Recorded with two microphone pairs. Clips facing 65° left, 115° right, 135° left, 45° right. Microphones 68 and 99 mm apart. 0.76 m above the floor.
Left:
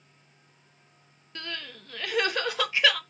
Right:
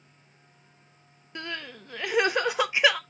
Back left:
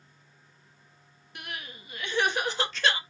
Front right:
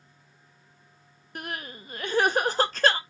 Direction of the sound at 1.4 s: 50° right.